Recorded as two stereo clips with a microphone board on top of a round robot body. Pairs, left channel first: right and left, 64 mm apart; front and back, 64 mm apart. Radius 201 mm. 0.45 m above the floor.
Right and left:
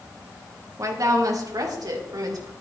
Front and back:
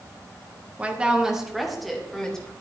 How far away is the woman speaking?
About 1.7 m.